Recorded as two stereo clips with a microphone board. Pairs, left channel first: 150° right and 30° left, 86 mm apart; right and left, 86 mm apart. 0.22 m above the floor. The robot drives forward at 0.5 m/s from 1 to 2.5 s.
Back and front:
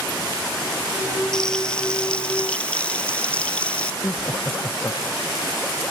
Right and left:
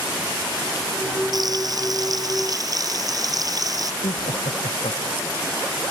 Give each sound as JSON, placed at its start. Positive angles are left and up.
{"t": 1.3, "sound": "frying", "azimuth_deg": 130}
{"t": 4.0, "sound": "laughter", "azimuth_deg": -90}